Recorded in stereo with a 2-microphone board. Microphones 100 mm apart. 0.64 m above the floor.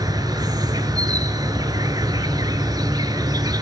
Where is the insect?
40° right (ahead or behind), 1.2 m.